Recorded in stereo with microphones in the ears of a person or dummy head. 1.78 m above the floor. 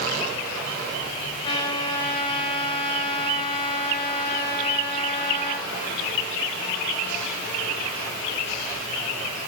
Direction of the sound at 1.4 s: 30° left (ahead or behind).